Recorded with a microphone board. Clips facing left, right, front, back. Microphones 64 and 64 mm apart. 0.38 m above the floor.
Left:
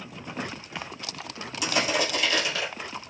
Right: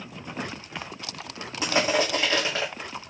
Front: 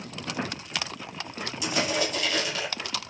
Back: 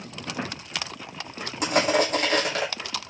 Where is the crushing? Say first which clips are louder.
Right 3 dB, back 6 dB; 145° right, 6.5 m.